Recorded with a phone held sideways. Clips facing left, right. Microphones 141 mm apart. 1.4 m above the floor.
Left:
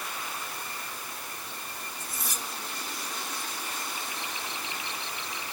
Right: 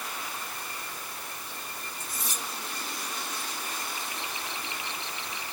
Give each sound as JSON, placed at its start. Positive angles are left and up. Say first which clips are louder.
{"t": 2.0, "sound": "cutlery clinking", "louder": "right 1 dB", "side_deg": 60, "distance_m": 7.0}